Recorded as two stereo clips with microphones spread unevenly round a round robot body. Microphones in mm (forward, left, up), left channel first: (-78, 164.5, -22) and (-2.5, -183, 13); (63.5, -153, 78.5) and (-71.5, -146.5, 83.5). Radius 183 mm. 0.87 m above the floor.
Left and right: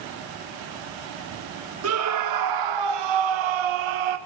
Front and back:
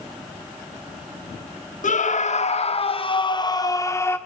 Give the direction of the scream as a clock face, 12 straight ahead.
1 o'clock.